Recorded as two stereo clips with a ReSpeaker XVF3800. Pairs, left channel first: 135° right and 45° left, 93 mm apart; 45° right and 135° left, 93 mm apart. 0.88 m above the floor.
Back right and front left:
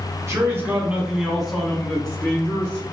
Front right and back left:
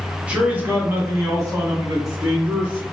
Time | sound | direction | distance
0.3 | a man speaking | 70° left | 1.0 m